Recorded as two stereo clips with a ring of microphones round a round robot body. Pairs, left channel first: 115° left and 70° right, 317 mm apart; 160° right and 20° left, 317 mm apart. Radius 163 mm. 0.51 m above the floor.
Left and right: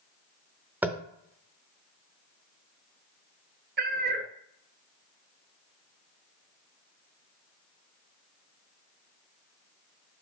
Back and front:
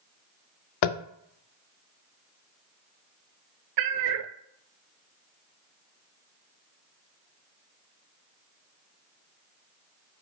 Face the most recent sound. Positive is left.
turn(degrees=-5)